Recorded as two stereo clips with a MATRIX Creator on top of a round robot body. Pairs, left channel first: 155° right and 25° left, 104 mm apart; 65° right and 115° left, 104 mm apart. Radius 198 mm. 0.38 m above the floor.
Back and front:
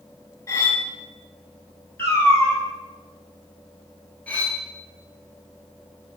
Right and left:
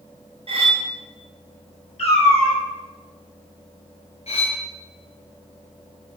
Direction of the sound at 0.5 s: 135° left.